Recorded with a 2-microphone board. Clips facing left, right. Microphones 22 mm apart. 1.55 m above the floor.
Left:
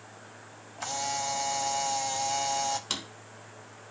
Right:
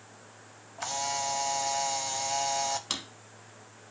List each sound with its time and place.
0.8 s a camera shutter: 10° right (ahead or behind), 0.6 m
2.9 s a drawer: 5° right (ahead or behind), 1.1 m